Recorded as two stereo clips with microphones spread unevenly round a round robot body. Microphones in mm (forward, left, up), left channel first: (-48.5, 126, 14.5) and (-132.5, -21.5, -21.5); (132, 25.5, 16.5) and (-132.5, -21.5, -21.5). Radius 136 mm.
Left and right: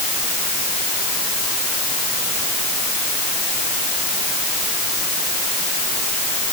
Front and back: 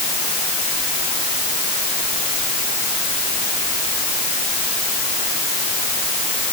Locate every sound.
Only background noise.